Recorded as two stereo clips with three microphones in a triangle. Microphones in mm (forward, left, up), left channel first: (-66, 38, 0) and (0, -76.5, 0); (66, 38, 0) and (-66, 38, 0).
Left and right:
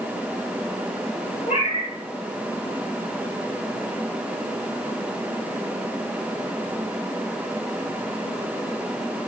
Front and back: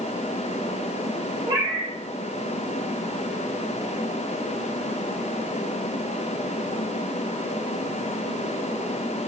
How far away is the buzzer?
I don't hear a buzzer.